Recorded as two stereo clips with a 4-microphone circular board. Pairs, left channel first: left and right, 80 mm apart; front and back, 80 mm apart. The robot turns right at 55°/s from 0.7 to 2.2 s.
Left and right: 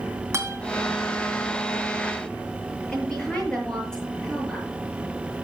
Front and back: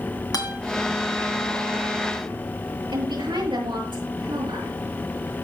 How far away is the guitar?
About 3 m.